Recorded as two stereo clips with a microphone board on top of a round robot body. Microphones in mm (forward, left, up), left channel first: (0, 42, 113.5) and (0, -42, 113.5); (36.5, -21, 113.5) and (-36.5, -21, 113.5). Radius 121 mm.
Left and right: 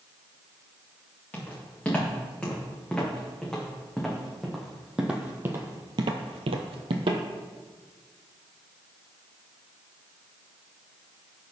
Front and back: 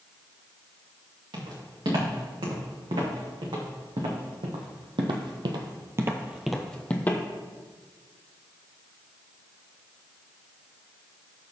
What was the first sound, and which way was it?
Footsteps, 165° left.